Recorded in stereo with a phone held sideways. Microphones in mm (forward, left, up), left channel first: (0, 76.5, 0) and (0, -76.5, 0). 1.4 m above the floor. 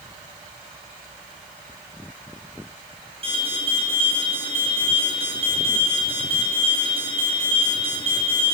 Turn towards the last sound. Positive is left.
turn(degrees=-40)  # may be behind; listen again after turning